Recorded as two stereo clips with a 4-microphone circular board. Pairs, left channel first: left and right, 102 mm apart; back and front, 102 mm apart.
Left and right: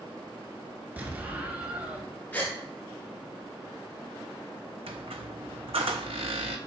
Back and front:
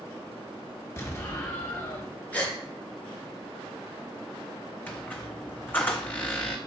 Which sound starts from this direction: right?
A squeak, at 4.9 s.